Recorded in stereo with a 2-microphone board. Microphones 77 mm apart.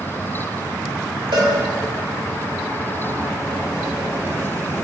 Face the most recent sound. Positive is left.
turn(degrees=-85)